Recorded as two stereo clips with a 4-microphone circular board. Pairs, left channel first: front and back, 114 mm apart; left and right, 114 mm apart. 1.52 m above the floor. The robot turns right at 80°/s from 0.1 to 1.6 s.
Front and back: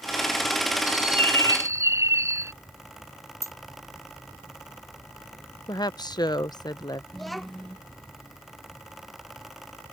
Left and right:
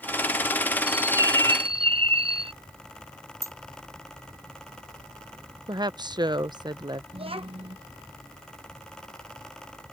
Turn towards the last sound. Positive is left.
turn(degrees=-90)